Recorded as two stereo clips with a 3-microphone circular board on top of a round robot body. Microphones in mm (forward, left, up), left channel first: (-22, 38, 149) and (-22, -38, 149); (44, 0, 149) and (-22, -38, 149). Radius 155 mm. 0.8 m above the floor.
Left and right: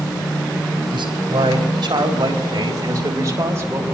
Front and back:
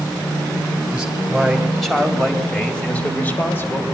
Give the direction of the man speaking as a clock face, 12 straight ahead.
2 o'clock.